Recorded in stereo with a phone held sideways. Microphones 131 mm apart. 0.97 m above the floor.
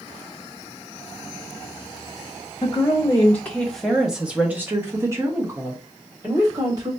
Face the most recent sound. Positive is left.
turn(degrees=-30)  # may be behind; listen again after turning